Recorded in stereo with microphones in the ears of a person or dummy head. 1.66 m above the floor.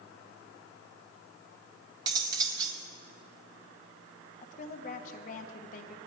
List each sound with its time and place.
2.1 s cutlery clinking: 20° right (ahead or behind), 1.5 m
4.4 s a woman speaking: 50° left (ahead or behind), 1.2 m